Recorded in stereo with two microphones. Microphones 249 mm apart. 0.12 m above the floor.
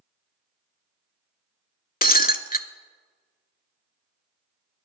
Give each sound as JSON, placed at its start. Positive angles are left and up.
{"t": 2.0, "sound": "breaking glass", "side_deg": 35, "distance_m": 0.6}